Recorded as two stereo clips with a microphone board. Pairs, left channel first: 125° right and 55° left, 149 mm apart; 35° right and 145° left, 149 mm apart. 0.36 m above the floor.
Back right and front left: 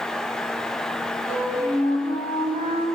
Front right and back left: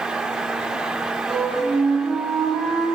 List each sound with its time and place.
1.3 s a flute: 120° right, 1.0 m